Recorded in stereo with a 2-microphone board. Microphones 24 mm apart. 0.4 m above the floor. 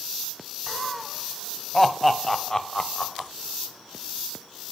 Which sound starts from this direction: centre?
Laughter, at 0.7 s.